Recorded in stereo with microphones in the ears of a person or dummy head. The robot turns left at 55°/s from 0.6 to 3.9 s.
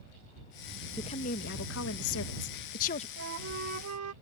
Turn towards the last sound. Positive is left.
turn(degrees=-100)